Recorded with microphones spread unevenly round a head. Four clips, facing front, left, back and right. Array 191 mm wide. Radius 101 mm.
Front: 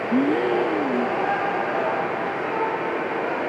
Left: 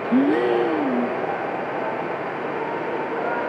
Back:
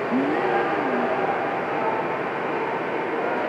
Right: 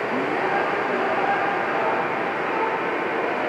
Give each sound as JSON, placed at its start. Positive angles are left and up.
{"t": 0.1, "sound": "a gasp", "azimuth_deg": 55}